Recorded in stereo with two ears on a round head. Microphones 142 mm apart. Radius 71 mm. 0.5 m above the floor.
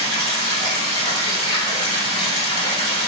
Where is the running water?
35° left (ahead or behind), 1.2 m.